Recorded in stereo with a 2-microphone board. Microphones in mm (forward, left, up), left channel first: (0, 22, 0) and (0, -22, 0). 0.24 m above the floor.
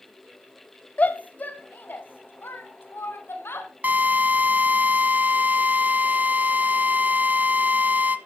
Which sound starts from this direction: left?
A shout, at 1.0 s.